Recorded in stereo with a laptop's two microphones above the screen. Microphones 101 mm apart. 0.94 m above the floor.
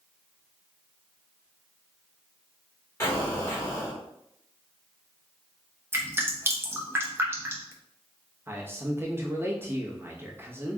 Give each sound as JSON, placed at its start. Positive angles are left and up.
{"t": 3.0, "sound": "an explosion", "side_deg": 25, "distance_m": 1.9}
{"t": 5.9, "sound": "dripping", "side_deg": -20, "distance_m": 0.9}
{"t": 8.5, "sound": "a man speaking", "side_deg": -20, "distance_m": 1.1}